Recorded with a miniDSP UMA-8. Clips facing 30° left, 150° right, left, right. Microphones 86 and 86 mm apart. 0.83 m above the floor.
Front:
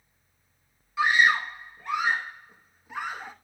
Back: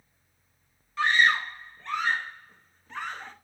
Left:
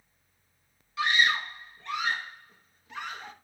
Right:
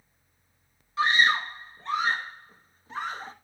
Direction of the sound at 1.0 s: 45° right.